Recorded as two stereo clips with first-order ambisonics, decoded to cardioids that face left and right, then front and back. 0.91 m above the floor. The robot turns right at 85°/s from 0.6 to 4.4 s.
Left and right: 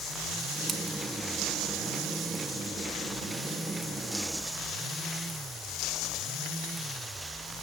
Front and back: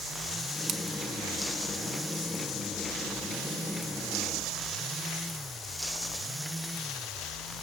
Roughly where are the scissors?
Behind.